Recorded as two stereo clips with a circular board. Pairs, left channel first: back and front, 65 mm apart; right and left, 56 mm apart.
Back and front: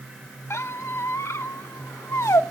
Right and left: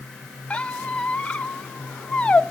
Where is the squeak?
155° right, 0.7 m.